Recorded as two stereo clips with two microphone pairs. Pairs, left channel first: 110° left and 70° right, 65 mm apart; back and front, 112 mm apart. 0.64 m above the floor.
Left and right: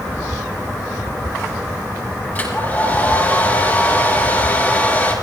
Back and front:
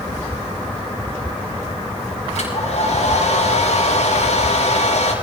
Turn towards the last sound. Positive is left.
turn(degrees=175)